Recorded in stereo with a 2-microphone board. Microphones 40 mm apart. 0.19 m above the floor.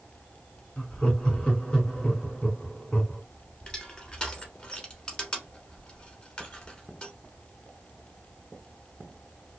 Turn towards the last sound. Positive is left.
turn(degrees=25)  # may be behind; listen again after turning